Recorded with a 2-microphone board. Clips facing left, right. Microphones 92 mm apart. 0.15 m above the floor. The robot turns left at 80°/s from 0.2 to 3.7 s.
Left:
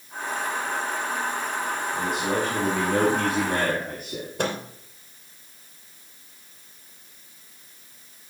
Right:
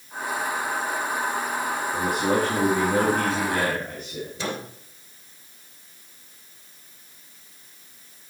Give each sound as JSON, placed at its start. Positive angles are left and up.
{"t": 1.9, "sound": "a man speaking", "azimuth_deg": -85, "distance_m": 4.0}
{"t": 4.4, "sound": "a microwave", "side_deg": 60, "distance_m": 2.5}